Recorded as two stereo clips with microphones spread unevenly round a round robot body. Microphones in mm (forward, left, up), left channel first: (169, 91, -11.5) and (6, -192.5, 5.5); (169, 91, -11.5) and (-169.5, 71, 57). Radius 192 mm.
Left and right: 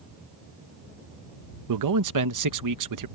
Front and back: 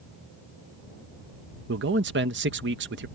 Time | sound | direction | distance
1.7 | a man speaking | 115° right | ?